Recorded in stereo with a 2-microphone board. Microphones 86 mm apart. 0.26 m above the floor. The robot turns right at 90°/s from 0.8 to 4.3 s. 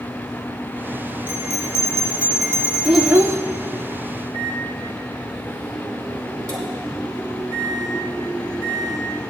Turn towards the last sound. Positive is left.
turn(degrees=-45)  # may be behind; listen again after turning